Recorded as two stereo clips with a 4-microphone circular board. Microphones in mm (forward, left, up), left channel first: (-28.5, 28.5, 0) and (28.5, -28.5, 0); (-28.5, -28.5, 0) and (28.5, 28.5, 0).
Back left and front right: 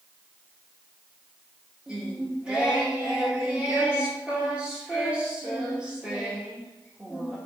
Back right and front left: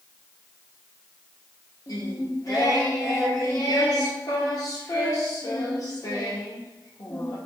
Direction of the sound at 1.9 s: 120° right.